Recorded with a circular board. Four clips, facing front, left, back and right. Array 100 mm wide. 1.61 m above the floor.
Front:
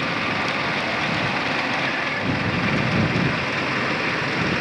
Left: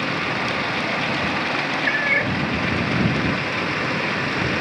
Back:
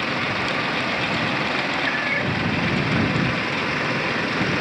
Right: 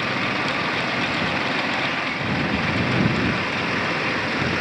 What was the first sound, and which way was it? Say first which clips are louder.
A cat meowing: left 3 dB, even; 105° left.